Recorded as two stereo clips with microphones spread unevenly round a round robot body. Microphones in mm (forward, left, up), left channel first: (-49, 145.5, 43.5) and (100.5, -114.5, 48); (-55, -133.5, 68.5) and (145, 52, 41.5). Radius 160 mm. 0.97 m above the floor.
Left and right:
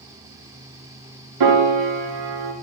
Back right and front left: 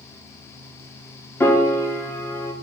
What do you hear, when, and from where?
1.4 s a piano: 55° right, 1.2 m